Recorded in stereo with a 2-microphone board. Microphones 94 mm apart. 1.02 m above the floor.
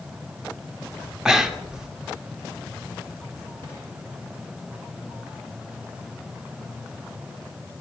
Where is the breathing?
5° right (ahead or behind), 0.7 m.